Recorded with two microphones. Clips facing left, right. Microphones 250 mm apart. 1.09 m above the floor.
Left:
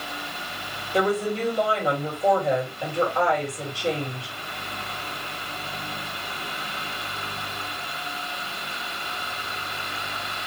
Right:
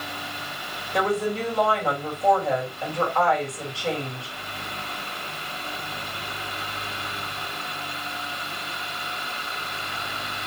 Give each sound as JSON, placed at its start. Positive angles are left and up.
{"t": 0.9, "sound": "a woman speaking", "side_deg": 20, "distance_m": 1.9}